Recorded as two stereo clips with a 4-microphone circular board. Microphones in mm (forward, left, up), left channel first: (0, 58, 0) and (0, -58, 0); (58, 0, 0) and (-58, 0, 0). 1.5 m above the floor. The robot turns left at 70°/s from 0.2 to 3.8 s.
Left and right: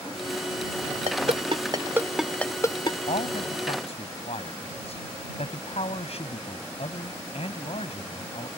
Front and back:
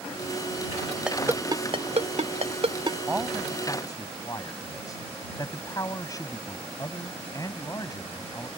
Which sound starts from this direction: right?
A ringtone, at 1.1 s.